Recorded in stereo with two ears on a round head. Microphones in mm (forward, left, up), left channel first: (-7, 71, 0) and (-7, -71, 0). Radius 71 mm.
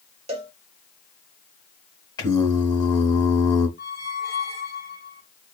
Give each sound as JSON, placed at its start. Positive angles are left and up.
{"t": 0.3, "sound": "a cowbell", "side_deg": -40, "distance_m": 1.0}
{"t": 2.2, "sound": "singing", "side_deg": 25, "distance_m": 1.4}
{"t": 3.8, "sound": "a squeak", "side_deg": 60, "distance_m": 1.8}